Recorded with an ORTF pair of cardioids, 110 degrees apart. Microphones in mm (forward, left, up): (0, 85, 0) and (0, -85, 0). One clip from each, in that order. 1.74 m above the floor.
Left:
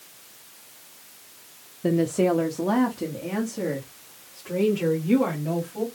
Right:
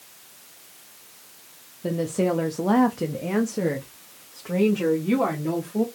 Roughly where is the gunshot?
No gunshot in this recording.